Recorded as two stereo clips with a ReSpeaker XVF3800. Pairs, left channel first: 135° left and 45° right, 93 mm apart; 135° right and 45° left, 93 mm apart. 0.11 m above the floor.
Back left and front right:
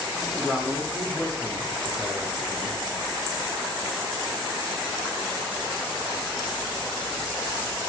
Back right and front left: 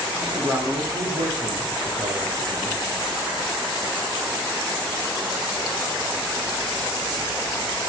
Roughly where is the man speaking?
Ahead.